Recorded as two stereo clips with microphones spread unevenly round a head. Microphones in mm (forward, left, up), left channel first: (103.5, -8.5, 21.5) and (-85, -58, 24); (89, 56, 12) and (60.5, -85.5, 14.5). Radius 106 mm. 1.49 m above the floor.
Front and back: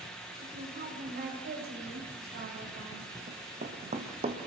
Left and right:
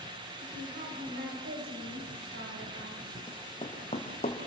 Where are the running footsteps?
140° left, 3.5 m; by 4.4 s 135° left, 2.5 m.